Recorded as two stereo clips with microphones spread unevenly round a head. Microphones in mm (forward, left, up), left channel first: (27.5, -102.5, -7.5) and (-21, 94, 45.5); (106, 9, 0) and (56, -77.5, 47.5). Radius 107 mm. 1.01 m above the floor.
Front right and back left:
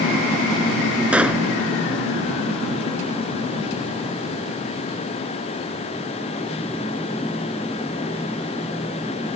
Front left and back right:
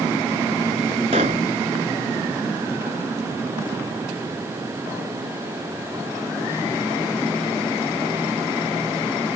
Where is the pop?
175° right.